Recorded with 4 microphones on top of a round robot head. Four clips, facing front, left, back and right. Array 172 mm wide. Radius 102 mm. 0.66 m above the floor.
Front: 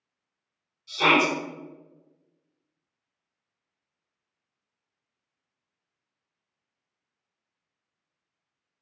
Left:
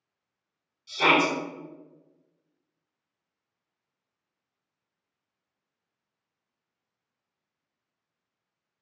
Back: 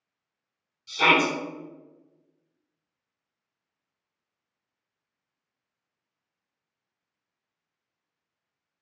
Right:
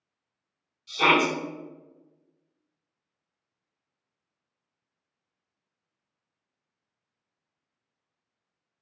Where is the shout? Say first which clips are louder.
Even, even; 150° right, 1.8 m.